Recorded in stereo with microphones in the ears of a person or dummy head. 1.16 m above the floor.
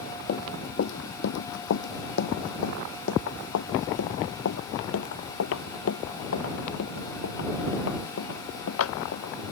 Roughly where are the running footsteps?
Left.